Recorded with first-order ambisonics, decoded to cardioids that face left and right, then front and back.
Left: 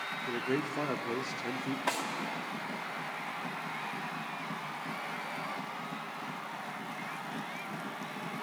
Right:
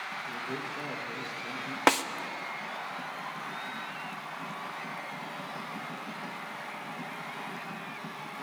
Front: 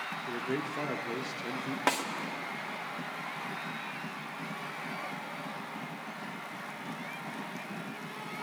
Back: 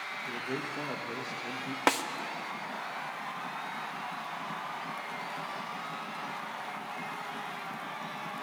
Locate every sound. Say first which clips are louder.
0.3 s a man speaking: left 2 dB, front 2 dB; 75° left, 0.6 m
1.9 s a snare drum: right 10 dB, back 2 dB; 110° right, 0.6 m